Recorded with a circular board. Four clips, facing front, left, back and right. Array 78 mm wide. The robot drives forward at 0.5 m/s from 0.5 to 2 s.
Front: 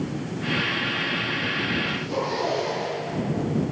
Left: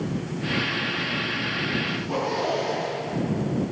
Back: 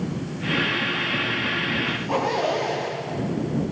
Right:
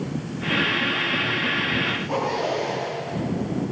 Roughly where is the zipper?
Behind.